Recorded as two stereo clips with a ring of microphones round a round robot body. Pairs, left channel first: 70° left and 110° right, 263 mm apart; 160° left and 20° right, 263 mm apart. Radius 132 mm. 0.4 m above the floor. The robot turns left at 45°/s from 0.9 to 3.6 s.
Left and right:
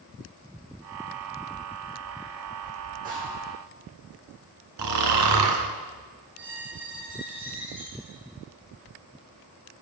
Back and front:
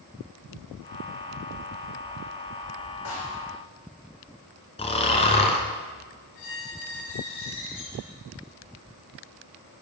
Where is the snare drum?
175° right, 6 m; by 3.5 s 165° left, 6 m.